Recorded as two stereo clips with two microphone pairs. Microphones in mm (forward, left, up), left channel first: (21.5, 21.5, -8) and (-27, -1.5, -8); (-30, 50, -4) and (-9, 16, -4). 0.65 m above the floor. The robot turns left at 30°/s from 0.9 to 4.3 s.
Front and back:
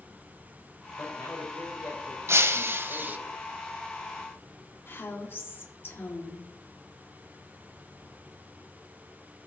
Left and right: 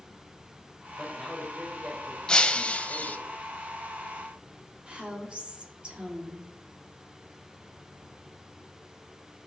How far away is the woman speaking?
About 1.6 m.